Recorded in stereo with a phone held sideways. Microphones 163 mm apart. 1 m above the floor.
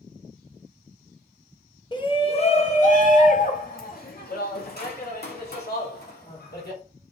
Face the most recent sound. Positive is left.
turn(degrees=80)